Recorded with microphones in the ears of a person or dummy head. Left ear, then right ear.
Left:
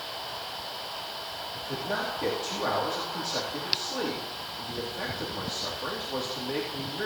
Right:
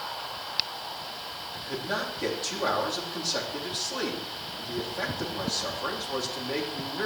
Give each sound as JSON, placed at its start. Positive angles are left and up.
{"t": 1.5, "sound": "a man speaking", "side_deg": -10, "distance_m": 3.5}